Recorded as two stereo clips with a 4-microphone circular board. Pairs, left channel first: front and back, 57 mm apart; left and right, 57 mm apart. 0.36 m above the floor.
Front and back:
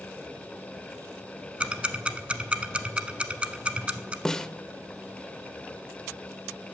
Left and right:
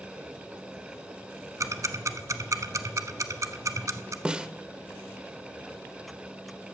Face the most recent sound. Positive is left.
turn(degrees=-55)